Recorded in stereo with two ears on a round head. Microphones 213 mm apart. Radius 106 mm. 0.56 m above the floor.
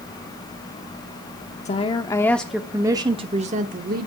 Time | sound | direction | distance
1.6 | a woman speaking | 30° left (ahead or behind) | 0.9 m